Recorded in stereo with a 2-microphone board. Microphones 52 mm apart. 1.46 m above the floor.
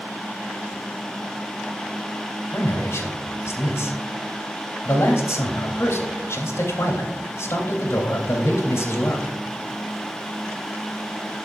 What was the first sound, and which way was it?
A man speaking, 65° left (ahead or behind).